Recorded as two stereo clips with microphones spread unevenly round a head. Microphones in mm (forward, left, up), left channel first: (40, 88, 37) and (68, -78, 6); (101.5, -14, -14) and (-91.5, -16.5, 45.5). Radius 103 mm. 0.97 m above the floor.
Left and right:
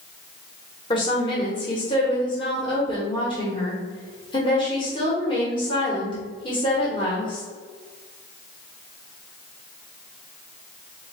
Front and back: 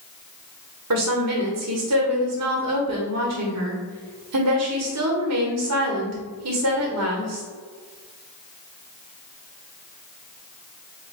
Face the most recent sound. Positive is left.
turn(degrees=170)